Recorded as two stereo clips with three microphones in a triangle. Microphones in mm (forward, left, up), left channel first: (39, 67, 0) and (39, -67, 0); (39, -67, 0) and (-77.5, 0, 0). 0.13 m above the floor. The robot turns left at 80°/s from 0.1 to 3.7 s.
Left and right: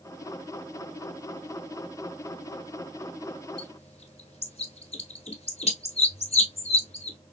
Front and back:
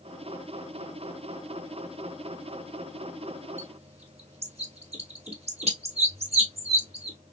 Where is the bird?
130° left, 1.1 m; by 7.2 s 120° left, 1.1 m.